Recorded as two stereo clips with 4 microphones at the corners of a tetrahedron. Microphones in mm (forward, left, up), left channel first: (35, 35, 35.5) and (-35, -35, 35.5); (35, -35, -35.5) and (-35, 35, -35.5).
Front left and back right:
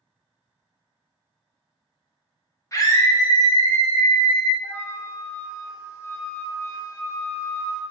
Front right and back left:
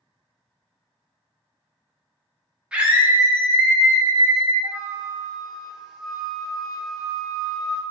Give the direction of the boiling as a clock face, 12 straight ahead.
I don't hear boiling.